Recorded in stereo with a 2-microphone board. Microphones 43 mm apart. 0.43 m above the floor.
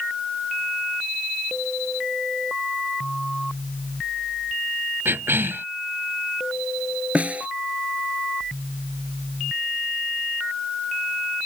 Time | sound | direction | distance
5.0 | a cough | 70° right (ahead or behind) | ?
7.2 | a snare drum | 35° right (ahead or behind) | ?